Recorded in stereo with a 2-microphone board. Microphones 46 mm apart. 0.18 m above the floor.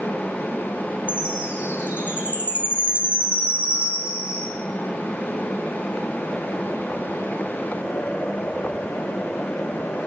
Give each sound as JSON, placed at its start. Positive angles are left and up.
{"t": 1.1, "sound": "a chime", "side_deg": -25, "distance_m": 8.0}